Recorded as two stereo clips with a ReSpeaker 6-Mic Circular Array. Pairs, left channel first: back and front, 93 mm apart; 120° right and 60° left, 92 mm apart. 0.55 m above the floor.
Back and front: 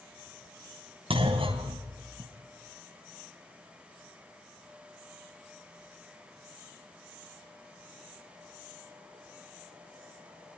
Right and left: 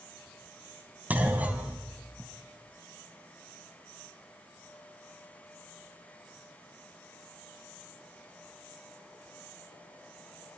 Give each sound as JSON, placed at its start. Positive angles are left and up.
{"t": 1.1, "sound": "a clunk", "azimuth_deg": -15, "distance_m": 3.0}